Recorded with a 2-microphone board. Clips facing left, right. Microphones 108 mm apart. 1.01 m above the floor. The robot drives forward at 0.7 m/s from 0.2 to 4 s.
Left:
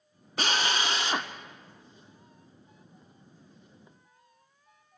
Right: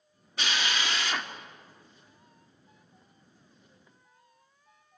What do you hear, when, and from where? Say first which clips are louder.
0.4 s a drill: left 3 dB; 40° left (ahead or behind), 0.6 m; by 1.3 s 20° left (ahead or behind), 1.0 m